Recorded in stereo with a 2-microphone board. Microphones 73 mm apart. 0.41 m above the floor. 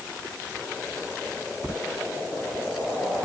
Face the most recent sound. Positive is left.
No sound to turn to.